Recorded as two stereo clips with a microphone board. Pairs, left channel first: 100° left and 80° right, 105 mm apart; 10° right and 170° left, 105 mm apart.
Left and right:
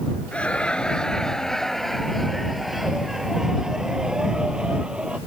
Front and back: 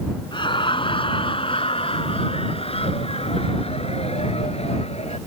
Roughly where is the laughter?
Ahead left.